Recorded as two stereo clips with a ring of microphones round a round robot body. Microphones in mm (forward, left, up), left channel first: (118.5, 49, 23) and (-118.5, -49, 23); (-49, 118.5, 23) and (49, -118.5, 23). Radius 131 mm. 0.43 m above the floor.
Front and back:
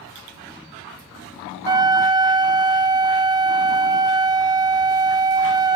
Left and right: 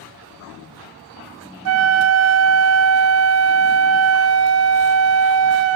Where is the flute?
85° right, 0.5 m.